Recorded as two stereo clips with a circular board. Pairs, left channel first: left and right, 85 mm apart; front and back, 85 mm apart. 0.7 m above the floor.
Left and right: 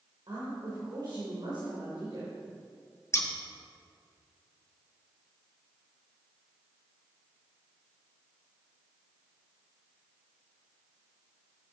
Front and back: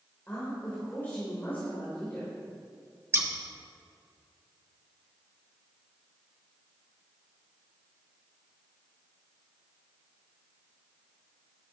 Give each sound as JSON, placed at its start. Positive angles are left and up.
{"t": 0.3, "sound": "a woman speaking", "azimuth_deg": -65, "distance_m": 3.0}
{"t": 3.1, "sound": "scissors", "azimuth_deg": 135, "distance_m": 1.2}